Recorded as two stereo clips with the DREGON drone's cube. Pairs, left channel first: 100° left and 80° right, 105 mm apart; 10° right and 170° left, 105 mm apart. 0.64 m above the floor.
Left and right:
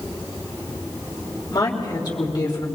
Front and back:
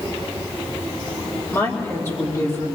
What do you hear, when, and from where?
1.5 s a woman speaking: 50° left, 3 m